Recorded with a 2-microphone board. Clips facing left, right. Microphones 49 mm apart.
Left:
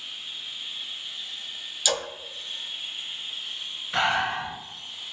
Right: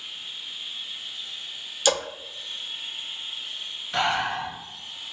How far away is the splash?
About 0.6 m.